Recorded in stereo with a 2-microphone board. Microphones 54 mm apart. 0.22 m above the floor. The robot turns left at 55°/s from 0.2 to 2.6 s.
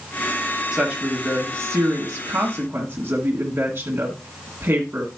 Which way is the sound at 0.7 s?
25° right.